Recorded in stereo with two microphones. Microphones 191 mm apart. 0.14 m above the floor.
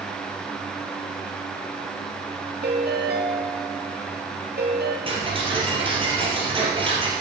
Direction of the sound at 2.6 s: 65° right (ahead or behind).